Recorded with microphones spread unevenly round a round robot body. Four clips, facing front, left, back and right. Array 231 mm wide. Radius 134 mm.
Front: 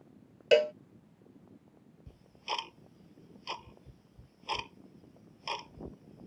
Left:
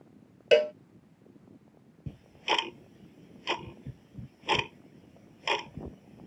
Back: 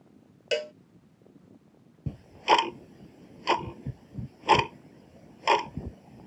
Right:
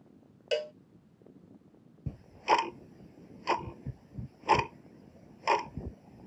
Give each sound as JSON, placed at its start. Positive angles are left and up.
{"t": 0.5, "sound": "a cowbell", "azimuth_deg": 80}
{"t": 2.1, "sound": "ticking", "azimuth_deg": 175}